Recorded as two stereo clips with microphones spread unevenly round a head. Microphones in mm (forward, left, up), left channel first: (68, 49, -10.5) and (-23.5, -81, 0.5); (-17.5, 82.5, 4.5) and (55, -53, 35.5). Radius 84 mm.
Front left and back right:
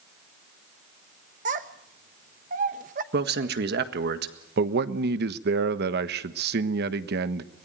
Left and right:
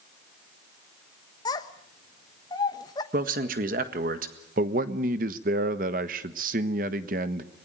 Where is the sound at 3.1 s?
105° right, 1.7 m.